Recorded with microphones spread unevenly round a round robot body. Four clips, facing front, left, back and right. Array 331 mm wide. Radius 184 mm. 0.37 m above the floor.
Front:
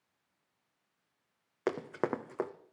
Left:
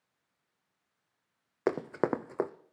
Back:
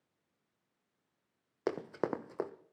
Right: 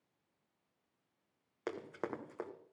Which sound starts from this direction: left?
Running footsteps, at 1.7 s.